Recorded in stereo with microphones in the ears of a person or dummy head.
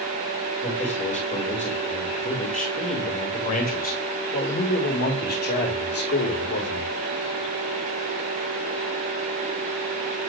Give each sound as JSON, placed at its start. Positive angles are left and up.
{"t": 0.6, "sound": "a man speaking", "side_deg": 35, "distance_m": 8.0}